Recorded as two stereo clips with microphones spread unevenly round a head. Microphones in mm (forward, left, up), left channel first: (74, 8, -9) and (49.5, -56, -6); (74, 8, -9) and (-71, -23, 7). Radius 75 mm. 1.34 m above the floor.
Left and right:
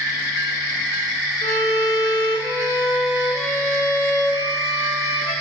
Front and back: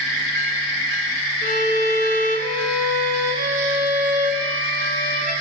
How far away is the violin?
About 1.1 m.